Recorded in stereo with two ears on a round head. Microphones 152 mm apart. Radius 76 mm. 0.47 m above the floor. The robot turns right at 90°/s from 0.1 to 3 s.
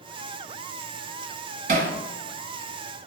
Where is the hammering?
55° right (ahead or behind), 1.5 m; by 1.9 s 75° right (ahead or behind), 1.5 m.